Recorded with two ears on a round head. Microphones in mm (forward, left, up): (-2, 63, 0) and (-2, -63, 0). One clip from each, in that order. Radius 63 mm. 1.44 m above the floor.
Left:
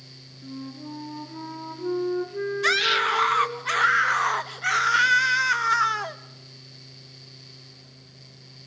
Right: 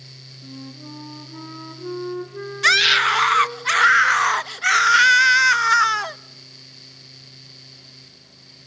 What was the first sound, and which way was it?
A flute, 15° right (ahead or behind).